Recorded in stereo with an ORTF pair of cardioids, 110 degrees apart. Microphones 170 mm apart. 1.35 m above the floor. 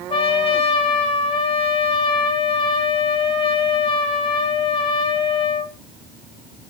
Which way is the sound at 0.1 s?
30° left.